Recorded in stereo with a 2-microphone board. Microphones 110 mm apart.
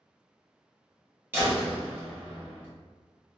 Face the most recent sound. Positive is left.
turn(degrees=-20)  # may be behind; listen again after turning